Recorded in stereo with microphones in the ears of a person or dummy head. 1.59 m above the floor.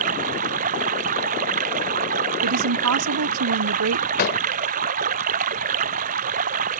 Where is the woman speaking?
85° right.